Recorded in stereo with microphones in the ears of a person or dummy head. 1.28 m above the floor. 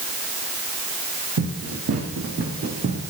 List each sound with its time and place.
1.4 s running footsteps: 60° right (ahead or behind), 4.5 m; by 3.1 s 30° right (ahead or behind), 3 m